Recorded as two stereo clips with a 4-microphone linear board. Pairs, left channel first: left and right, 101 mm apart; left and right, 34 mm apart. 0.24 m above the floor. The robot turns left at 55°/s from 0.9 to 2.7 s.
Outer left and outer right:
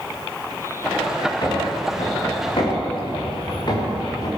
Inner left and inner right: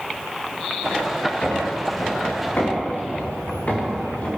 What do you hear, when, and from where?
1.4 s footsteps: 45° left (ahead or behind), 6 m; by 4.3 s 40° left (ahead or behind), 5.5 m